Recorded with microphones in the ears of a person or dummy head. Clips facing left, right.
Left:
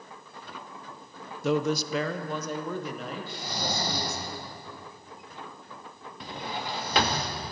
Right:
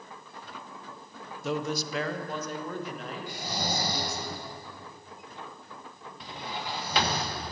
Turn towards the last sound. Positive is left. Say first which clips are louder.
# left 3 dB
turn(degrees=45)  # may be behind; listen again after turning